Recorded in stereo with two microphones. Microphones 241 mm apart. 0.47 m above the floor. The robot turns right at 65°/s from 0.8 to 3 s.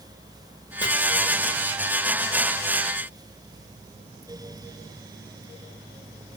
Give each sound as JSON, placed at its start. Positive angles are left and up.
{"t": 0.8, "sound": "chopping", "side_deg": 15, "distance_m": 0.8}